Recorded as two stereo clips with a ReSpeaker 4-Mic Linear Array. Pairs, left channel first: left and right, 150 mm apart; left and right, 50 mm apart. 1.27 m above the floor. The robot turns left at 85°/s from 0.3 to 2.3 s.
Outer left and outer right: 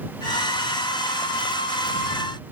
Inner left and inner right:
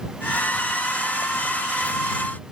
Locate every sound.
Only background noise.